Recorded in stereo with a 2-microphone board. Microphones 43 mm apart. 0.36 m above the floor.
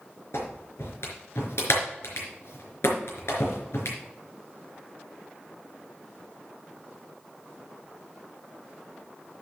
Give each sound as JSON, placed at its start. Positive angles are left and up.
{"t": 0.3, "sound": "a clap", "side_deg": 80, "distance_m": 4.0}